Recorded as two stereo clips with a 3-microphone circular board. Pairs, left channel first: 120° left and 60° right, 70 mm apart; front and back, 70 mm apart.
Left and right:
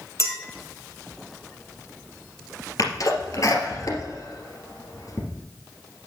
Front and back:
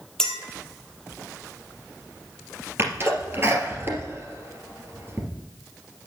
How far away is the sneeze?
About 2.5 m.